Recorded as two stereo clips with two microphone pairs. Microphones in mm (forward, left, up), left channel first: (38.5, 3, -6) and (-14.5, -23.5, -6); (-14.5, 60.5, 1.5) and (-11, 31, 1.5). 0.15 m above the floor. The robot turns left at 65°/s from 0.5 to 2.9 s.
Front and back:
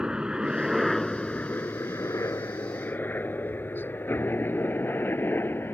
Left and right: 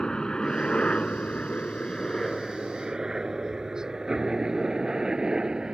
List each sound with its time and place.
0.0 s a helicopter: 140° left; by 5.8 s 20° right